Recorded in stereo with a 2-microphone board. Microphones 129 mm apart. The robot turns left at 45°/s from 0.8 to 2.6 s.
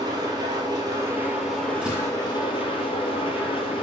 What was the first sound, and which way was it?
An engine running, 150° right.